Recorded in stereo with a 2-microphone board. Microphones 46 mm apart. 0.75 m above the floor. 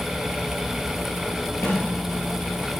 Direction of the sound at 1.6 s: 70° left (ahead or behind).